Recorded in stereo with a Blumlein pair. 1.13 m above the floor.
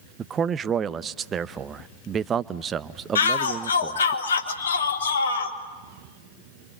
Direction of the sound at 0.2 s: 25° right.